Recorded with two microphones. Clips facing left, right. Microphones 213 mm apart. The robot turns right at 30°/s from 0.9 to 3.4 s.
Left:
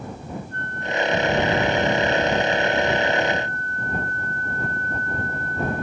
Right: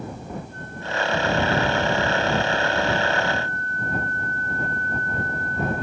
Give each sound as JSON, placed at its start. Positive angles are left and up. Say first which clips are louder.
{"t": 0.5, "sound": "a flute", "louder": "left 5 dB", "azimuth_deg": 75}